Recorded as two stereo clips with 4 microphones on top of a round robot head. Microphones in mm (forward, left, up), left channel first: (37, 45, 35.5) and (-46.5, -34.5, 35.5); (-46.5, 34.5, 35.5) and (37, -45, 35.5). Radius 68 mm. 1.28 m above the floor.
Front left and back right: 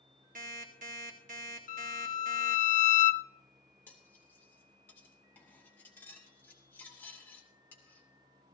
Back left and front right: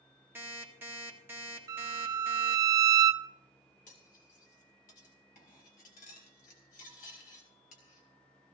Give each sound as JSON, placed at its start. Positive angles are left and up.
{"t": 0.3, "sound": "an alarm clock", "azimuth_deg": -115, "distance_m": 1.9}
{"t": 1.7, "sound": "a violin", "azimuth_deg": 20, "distance_m": 0.5}
{"t": 3.9, "sound": "cutlery clinking", "azimuth_deg": 115, "distance_m": 2.5}